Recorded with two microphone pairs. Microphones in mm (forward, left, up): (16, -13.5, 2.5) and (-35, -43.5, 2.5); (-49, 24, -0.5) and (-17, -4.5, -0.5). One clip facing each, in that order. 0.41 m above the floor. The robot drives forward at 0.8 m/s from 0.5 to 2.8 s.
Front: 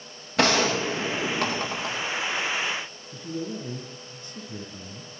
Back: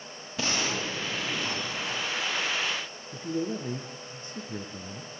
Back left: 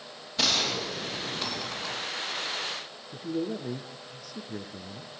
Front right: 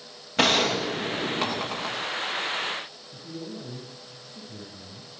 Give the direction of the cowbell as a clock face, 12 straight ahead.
I don't hear a cowbell.